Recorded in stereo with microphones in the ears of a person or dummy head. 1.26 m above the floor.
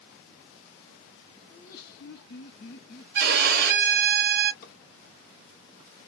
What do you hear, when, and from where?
1.5 s laughter: 35° left (ahead or behind), 0.6 m; by 3.0 s 55° left (ahead or behind), 1.0 m
3.1 s a violin: 45° right (ahead or behind), 0.8 m
4.6 s a drawer: 50° left (ahead or behind), 1.3 m